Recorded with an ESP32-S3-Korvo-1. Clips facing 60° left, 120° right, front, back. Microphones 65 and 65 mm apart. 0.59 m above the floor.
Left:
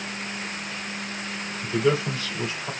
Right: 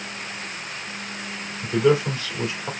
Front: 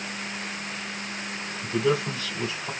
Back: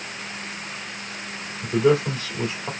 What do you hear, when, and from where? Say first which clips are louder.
1.6 s a man speaking: right 4 dB, back 5 dB; 175° left, 2.5 m